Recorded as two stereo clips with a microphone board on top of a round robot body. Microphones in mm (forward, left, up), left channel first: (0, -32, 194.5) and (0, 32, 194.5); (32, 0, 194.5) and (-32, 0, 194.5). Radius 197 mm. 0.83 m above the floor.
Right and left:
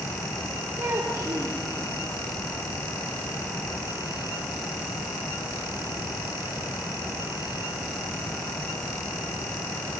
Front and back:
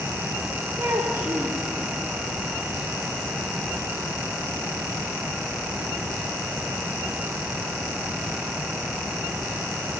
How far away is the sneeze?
No sneeze in this recording.